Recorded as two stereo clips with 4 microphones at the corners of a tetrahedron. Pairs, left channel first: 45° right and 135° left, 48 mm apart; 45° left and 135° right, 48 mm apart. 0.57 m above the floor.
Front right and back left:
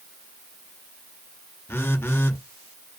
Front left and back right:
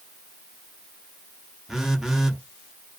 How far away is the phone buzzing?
About 0.6 m.